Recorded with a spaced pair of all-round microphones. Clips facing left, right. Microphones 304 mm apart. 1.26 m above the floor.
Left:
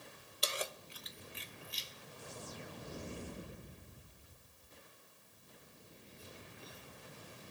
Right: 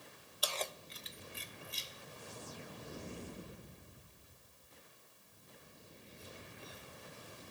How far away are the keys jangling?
About 0.5 m.